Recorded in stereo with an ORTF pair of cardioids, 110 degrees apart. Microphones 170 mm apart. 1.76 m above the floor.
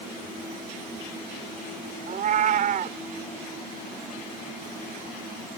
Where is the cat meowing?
55° right.